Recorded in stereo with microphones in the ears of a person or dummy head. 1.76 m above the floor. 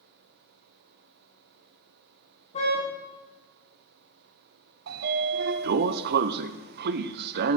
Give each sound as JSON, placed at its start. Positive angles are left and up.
{"t": 2.5, "sound": "a car horn", "side_deg": 40, "distance_m": 9.0}
{"t": 4.9, "sound": "a sliding door", "side_deg": -60, "distance_m": 0.8}